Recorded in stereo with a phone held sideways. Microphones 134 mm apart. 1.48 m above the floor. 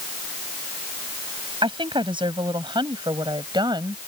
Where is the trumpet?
No trumpet in this recording.